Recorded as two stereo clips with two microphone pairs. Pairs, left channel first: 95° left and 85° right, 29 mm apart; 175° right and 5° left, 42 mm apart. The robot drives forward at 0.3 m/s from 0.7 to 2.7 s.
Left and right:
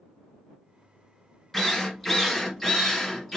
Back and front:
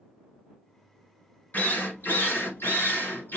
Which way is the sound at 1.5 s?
175° left.